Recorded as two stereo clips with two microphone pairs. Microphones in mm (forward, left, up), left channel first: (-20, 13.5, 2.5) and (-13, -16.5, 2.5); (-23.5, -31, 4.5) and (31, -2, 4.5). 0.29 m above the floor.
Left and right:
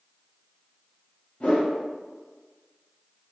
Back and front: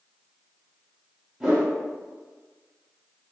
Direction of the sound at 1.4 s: 100° left.